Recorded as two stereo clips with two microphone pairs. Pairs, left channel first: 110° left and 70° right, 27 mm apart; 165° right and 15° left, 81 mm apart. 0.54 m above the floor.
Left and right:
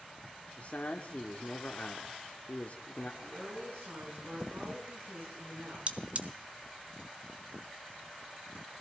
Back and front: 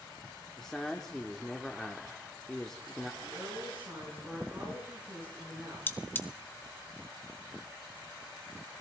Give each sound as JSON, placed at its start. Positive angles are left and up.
{"t": 0.6, "sound": "a man speaking", "azimuth_deg": 110, "distance_m": 1.0}
{"t": 3.2, "sound": "a woman speaking", "azimuth_deg": -55, "distance_m": 5.5}
{"t": 5.9, "sound": "cutlery clinking", "azimuth_deg": -100, "distance_m": 0.8}